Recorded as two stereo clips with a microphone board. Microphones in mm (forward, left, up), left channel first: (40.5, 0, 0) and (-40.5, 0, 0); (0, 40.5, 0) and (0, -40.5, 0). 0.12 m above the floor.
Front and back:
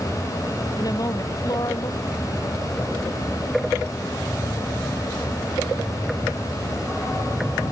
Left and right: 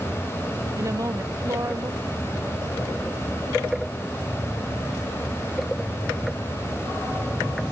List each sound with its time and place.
0.8 s a woman speaking: 40° right